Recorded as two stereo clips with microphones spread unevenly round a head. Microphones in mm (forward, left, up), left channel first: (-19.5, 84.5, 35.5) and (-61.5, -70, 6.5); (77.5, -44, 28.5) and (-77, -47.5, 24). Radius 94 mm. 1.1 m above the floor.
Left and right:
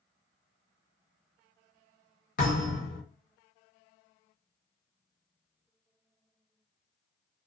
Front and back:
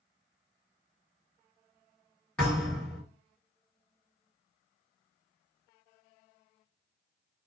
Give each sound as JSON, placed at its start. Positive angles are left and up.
{"t": 2.4, "sound": "a thud", "azimuth_deg": 85, "distance_m": 1.8}